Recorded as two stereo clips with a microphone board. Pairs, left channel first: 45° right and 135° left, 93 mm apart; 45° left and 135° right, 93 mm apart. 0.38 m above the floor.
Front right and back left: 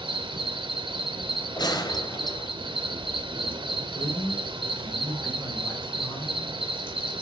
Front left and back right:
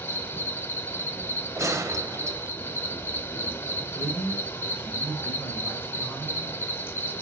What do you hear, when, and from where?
0.0 s an insect: 110° left, 0.8 m
1.6 s a gunshot: 80° right, 0.9 m
4.0 s a man speaking: 30° right, 1.6 m